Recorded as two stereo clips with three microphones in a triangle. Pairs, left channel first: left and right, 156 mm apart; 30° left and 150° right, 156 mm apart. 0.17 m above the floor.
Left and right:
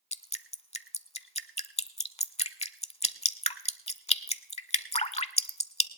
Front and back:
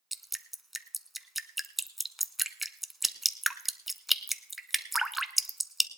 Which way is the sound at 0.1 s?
120° left.